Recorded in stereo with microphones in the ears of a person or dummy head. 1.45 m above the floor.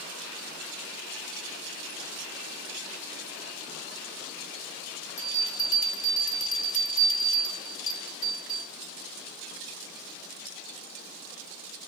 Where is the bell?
35° left (ahead or behind), 2 m.